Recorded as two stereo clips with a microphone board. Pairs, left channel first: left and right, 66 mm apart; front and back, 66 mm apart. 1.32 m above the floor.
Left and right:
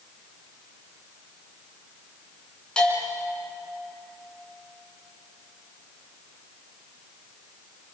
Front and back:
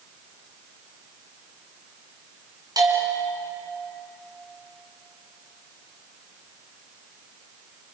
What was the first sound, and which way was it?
A bell, 165° left.